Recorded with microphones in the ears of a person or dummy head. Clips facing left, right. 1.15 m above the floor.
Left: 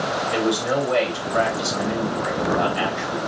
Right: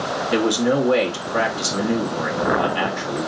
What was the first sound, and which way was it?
A man speaking, 75° right (ahead or behind).